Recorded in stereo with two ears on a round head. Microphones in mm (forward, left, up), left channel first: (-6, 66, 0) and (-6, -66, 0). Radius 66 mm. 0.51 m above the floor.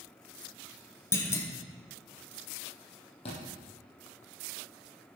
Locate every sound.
1.1 s a clunk: 20° left (ahead or behind), 1.4 m
3.2 s a thud: 40° left (ahead or behind), 5 m